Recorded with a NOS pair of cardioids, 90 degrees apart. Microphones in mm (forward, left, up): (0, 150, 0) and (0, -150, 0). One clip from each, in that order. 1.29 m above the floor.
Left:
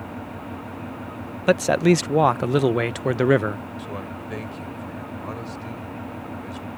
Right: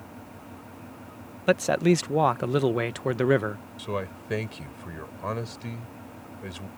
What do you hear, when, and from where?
0.0 s an engine running: 70° left
1.5 s a man speaking: 20° left
3.8 s a man speaking: 30° right